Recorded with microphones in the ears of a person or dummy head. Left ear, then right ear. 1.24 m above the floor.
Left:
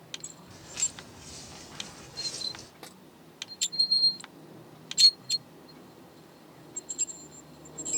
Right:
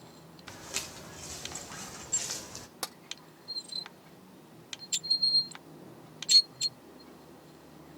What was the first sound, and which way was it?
Footsteps, 80° right.